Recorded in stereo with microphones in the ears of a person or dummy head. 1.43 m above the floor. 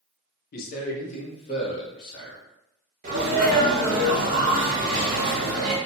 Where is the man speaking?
55° left (ahead or behind), 0.7 m; by 2.4 s 20° left (ahead or behind), 1.7 m.